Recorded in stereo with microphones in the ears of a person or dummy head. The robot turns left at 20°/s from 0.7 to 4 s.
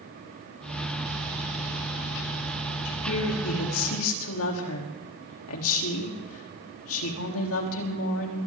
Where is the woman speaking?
75° left (ahead or behind), 3.5 m; by 8.4 s 80° left, 3.5 m.